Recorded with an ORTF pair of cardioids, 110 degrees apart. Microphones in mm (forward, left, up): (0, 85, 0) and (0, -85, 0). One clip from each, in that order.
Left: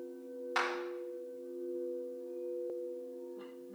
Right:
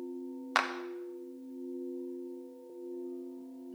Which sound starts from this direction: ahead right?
A clap, at 0.6 s.